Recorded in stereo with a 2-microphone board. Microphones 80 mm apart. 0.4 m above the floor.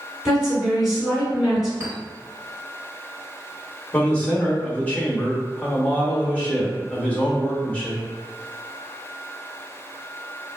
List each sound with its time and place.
0.2 s a woman speaking: 10° right (ahead or behind), 1.7 m
1.8 s a clink: 30° right (ahead or behind), 1.0 m
3.9 s a man speaking: 20° left (ahead or behind), 0.8 m